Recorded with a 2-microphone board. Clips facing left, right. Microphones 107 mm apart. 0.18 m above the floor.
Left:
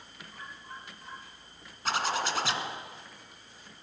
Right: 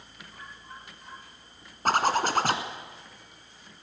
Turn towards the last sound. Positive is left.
turn(degrees=-50)  # may be behind; listen again after turning